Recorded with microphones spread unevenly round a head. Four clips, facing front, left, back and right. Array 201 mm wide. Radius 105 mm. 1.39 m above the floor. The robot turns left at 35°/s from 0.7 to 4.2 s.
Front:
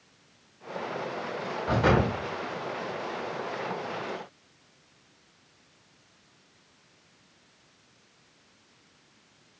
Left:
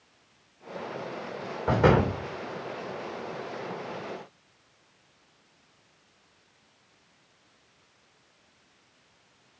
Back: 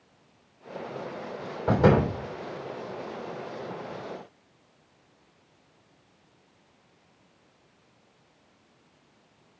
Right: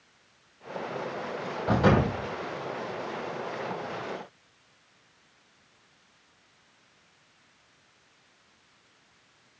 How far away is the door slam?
About 3.5 m.